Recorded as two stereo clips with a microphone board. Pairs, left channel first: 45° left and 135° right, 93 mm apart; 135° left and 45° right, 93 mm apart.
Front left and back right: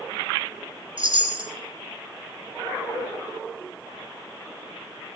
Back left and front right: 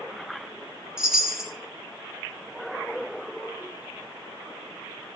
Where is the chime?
130° right, 1.9 m.